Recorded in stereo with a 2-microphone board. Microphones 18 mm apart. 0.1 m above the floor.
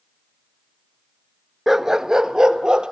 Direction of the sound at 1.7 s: 20° right (ahead or behind).